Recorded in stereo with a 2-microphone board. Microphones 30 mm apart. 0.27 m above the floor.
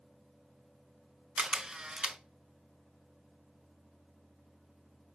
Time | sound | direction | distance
1.4 | a camera shutter | 20° right (ahead or behind) | 0.6 m